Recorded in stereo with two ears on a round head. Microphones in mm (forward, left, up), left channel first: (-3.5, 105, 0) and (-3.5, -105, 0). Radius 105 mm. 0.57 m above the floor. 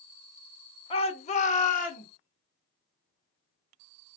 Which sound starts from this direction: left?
A shout, at 0.9 s.